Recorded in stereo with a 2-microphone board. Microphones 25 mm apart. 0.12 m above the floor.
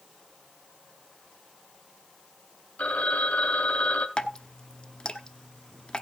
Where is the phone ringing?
55° left (ahead or behind), 2.5 m.